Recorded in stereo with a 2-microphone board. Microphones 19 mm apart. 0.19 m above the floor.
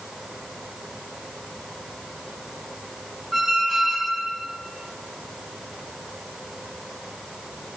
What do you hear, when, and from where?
3.3 s a squeak: 15° right (ahead or behind), 0.6 m